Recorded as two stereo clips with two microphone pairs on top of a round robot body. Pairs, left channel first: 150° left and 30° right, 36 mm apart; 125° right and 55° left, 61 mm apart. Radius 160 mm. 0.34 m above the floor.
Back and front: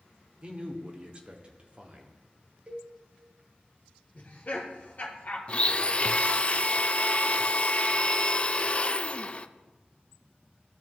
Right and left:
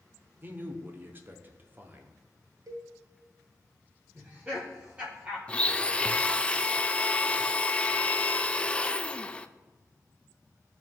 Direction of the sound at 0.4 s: 20° left.